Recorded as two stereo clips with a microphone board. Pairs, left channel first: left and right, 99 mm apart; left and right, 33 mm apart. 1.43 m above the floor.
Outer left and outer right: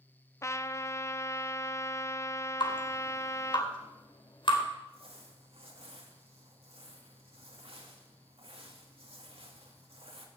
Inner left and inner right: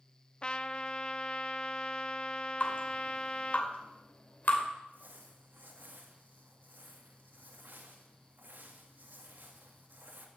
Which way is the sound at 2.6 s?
55° left (ahead or behind).